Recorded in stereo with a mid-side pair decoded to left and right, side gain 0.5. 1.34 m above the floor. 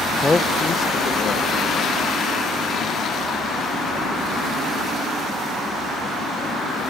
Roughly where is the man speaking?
Ahead.